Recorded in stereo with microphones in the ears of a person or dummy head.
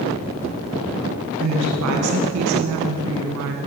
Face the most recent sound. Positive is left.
turn(degrees=-70)  # may be behind; listen again after turning